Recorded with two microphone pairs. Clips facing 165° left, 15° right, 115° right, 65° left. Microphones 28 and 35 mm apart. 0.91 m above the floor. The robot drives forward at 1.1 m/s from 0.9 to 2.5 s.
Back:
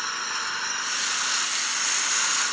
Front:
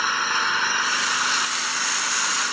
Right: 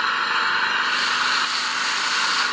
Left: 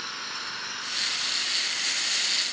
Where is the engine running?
75° right; by 2.5 s 95° right.